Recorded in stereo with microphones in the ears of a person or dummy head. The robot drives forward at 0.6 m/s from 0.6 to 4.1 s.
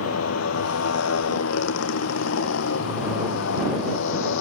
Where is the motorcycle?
85° left; by 4.4 s 75° left (ahead or behind).